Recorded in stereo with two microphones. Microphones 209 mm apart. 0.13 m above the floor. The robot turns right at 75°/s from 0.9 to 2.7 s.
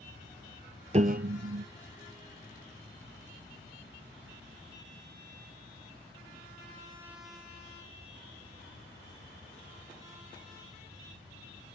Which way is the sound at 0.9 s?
145° right.